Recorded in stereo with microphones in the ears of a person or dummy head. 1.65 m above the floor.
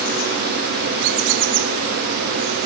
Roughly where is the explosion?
No explosion in this recording.